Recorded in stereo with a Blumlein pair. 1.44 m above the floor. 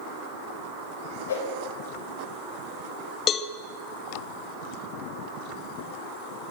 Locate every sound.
1.3 s a whoosh: 60° left, 5 m
3.3 s a cowbell: 25° left, 1.2 m